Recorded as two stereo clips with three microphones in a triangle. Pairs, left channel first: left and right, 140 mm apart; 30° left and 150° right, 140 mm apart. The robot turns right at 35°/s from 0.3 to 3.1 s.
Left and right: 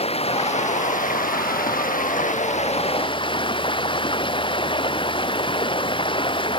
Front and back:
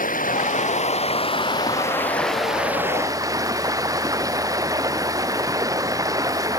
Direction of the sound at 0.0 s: 45° left.